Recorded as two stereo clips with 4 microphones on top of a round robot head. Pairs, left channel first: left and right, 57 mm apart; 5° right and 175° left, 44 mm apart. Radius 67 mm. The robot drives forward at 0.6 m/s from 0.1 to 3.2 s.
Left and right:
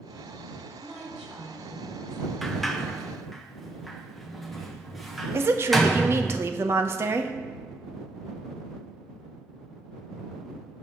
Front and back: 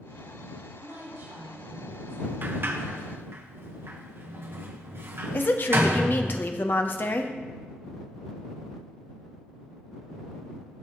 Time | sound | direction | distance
0.8 | a woman speaking | 165° right | 4 m
2.4 | a sliding door | 175° left | 0.8 m
5.3 | a woman speaking | 50° right | 0.8 m